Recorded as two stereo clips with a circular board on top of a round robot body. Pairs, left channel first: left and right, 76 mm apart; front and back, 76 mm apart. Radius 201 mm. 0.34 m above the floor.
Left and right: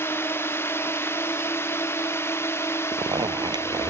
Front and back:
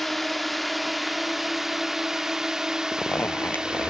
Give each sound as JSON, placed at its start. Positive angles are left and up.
{"t": 0.0, "sound": "a drone", "azimuth_deg": 90}
{"t": 2.9, "sound": "a zipper", "azimuth_deg": -65}